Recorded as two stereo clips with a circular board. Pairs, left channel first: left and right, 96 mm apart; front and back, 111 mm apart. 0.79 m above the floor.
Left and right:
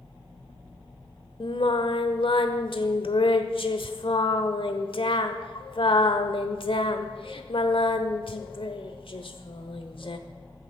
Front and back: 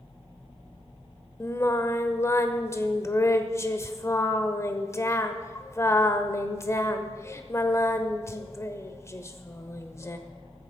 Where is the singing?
65° left, 1.1 m.